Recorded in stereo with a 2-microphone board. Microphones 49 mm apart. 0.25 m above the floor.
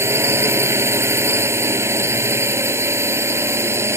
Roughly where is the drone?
Right.